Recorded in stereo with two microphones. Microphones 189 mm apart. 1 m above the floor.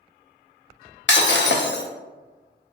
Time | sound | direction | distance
1.1 | breaking glass | 75° left (ahead or behind) | 0.5 m